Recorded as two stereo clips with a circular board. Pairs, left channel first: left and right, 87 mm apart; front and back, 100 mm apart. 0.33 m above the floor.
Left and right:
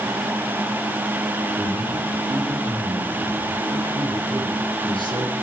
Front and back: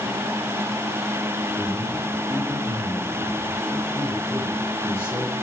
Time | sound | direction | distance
1.6 | a man speaking | 70° right | 8 m